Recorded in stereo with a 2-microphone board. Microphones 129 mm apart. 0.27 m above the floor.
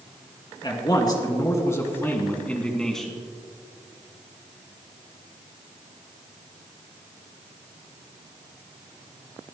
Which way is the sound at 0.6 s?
35° left (ahead or behind).